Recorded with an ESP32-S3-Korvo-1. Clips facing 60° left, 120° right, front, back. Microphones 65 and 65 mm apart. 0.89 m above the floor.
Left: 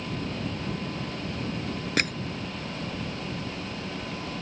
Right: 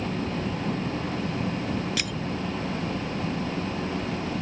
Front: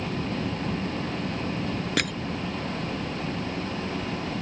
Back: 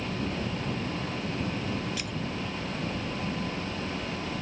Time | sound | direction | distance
0.0 | an engine running | 70° right | ?
2.0 | crushing | 15° left | ?